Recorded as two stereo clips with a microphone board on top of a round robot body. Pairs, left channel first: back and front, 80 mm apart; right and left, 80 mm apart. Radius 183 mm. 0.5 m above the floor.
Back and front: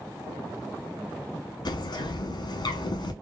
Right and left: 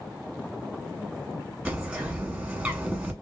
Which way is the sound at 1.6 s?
165° left.